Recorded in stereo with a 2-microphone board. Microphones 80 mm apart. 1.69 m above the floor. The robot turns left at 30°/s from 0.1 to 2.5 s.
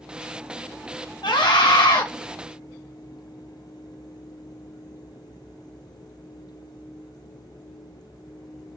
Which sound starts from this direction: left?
A scream, at 1.2 s.